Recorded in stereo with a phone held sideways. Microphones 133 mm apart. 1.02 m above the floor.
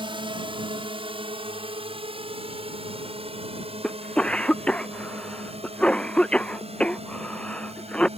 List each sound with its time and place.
0.0 s a drone: 40° right (ahead or behind); by 8.2 s 50° right (ahead or behind)
3.8 s a cough: 10° left (ahead or behind)